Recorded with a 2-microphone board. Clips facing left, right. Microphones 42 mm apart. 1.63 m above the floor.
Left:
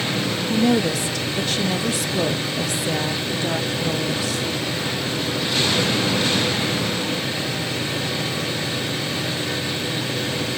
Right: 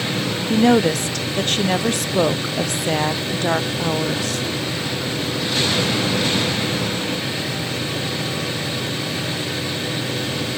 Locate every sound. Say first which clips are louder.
0.5 s a woman speaking: right 4 dB; 55° right (ahead or behind), 0.7 m